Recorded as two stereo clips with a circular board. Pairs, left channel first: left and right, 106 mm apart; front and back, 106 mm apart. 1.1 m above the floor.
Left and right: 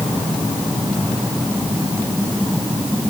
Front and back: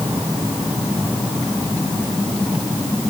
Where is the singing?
I don't hear singing.